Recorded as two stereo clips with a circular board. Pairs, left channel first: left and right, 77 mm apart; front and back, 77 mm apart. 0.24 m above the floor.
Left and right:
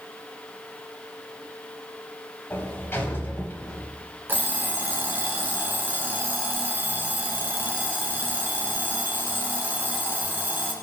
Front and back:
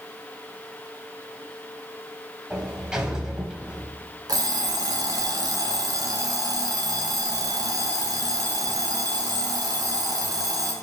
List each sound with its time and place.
2.5 s a sliding door: 110° left, 1.0 m
4.3 s an alarm clock: 150° right, 1.4 m